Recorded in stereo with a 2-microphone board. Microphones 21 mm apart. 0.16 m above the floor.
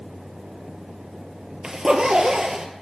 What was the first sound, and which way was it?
A zipper, 40° right (ahead or behind).